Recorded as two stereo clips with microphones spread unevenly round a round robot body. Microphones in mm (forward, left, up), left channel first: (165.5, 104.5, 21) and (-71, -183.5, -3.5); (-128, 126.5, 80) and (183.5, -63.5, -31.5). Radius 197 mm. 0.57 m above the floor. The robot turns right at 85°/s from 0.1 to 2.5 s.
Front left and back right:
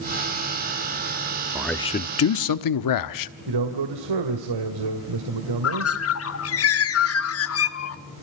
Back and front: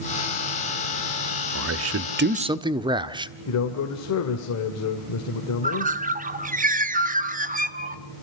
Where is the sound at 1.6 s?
50° right, 1.1 m; by 3.3 s 30° left, 1.1 m.